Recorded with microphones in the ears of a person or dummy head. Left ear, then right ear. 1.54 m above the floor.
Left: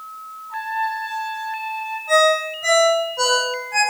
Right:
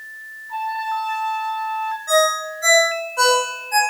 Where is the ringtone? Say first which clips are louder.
Left 2 dB; 70° right (ahead or behind), 5 m.